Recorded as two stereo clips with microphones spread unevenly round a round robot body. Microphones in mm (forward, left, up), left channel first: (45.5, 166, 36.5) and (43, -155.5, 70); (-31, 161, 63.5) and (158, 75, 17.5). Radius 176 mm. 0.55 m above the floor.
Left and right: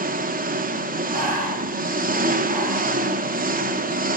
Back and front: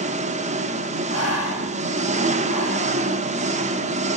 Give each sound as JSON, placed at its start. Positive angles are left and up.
{"t": 0.0, "sound": "an engine running", "azimuth_deg": -30, "distance_m": 1.1}
{"t": 1.1, "sound": "breathing", "azimuth_deg": -160, "distance_m": 3.0}